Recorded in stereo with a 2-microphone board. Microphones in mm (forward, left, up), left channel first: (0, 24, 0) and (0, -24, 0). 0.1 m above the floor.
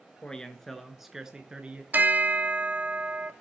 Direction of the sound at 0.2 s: 20° left (ahead or behind).